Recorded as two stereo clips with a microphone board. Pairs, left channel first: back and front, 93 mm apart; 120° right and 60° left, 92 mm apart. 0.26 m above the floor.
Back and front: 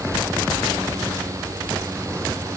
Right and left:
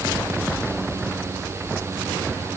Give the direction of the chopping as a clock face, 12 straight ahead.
I don't hear chopping.